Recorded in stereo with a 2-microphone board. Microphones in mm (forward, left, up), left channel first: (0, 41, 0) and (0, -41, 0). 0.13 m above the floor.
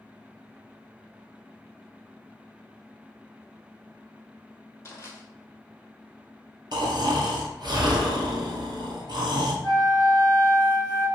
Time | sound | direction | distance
4.8 | crushing | 35° left (ahead or behind) | 1.0 m
6.7 | snoring | 65° right (ahead or behind) | 0.9 m
9.6 | a flute | 30° left (ahead or behind) | 1.4 m